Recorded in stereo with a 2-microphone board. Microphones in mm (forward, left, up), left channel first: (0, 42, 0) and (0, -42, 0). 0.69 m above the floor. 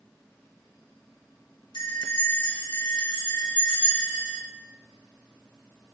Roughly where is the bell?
Left.